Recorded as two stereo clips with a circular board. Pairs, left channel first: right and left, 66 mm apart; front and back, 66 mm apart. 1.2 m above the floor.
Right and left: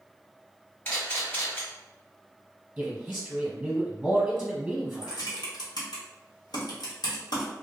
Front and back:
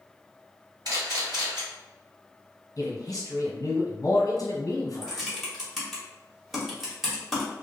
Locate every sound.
0.8 s a camera shutter: 155° right, 1.6 m
2.8 s a man speaking: 15° left, 0.9 m
5.0 s typing on a keyboard: 90° right, 1.0 m